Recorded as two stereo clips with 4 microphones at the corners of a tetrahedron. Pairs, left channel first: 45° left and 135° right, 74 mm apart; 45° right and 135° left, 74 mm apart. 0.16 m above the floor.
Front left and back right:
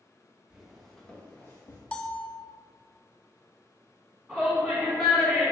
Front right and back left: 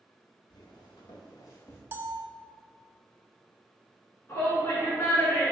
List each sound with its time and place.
0.5 s footsteps: 55° right, 2 m; by 1.8 s 5° left, 2 m
1.9 s a bell: 110° left, 0.6 m
4.3 s a shout: 45° right, 2 m